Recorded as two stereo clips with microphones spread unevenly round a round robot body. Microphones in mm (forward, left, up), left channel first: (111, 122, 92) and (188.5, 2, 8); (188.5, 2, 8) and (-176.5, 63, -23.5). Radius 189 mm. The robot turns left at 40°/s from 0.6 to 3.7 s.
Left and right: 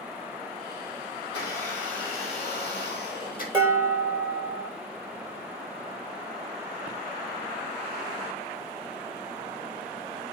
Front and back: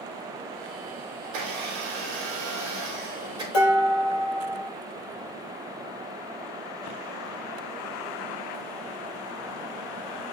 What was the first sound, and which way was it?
A blender, straight behind.